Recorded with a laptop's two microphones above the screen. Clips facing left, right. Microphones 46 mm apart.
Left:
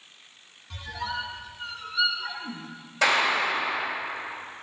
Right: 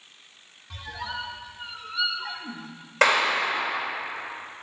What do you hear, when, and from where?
0.7 s a squeak: 15° right (ahead or behind), 0.8 m
3.0 s a clap: 70° right (ahead or behind), 3 m